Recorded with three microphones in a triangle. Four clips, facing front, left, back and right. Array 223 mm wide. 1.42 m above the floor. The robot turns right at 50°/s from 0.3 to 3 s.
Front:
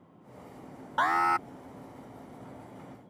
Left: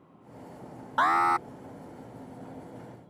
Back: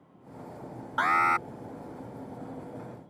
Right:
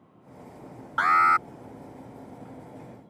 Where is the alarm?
60° left; by 1.5 s 85° left.